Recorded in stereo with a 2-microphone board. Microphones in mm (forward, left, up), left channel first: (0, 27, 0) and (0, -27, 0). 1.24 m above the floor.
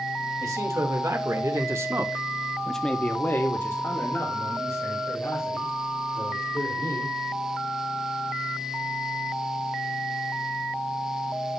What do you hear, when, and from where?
0.4 s a man speaking: 80° right, 2.5 m; by 7.2 s 75° left (ahead or behind), 5 m